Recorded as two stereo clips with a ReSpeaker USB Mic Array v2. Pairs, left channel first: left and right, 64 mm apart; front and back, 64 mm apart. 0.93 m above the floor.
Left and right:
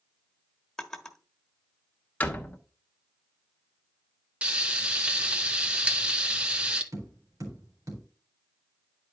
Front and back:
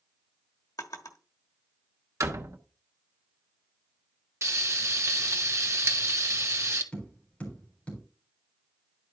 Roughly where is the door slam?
Behind left.